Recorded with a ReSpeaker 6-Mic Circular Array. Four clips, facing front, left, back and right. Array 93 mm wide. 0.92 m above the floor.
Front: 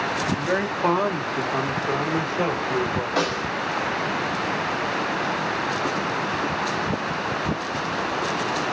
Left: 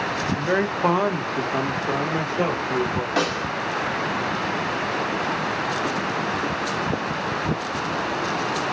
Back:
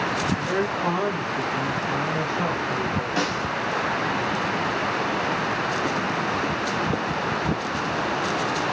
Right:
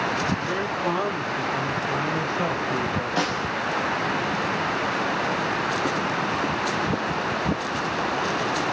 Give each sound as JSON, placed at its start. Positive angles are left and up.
{"t": 0.3, "sound": "a man speaking", "azimuth_deg": 70, "distance_m": 1.0}
{"t": 3.2, "sound": "a snare drum", "azimuth_deg": 65, "distance_m": 2.5}